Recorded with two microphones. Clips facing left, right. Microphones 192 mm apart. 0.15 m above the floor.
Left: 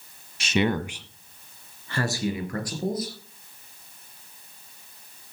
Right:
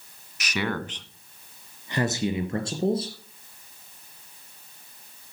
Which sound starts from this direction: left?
A man speaking, at 0.4 s.